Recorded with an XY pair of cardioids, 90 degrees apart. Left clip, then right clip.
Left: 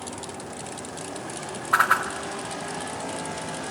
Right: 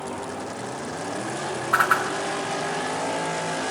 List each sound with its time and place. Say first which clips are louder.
1.7 s a whoosh: even; 20° left, 3 m